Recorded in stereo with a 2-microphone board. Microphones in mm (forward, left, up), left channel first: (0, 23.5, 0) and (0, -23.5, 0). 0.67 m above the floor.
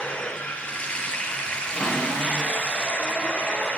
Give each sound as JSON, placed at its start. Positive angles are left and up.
{"t": 0.0, "sound": "running water", "side_deg": 25, "distance_m": 2.5}
{"t": 1.7, "sound": "a cupboard door", "side_deg": 0, "distance_m": 5.5}